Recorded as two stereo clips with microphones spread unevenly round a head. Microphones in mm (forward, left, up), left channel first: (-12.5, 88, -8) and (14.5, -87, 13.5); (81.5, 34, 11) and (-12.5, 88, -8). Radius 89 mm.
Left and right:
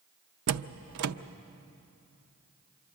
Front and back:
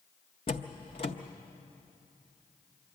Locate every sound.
0.5 s a door slam: 90° right, 0.5 m